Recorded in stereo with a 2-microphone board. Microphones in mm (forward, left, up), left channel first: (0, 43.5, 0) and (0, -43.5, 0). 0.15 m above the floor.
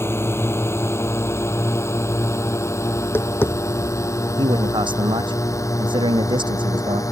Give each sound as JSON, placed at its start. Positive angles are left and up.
{"t": 0.0, "sound": "a drone", "side_deg": 30}
{"t": 3.0, "sound": "tapping", "side_deg": 25}
{"t": 4.4, "sound": "a man speaking", "side_deg": -80}